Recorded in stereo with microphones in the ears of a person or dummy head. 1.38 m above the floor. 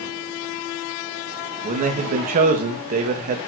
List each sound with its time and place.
1.6 s a man speaking: 45° right (ahead or behind), 2 m